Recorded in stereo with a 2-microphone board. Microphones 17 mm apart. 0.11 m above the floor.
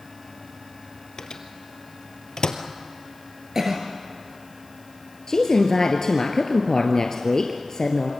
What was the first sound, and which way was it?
A microwave, 50° left (ahead or behind).